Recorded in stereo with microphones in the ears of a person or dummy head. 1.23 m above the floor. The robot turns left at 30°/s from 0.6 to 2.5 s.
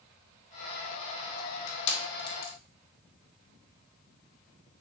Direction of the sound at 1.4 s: 50° left (ahead or behind).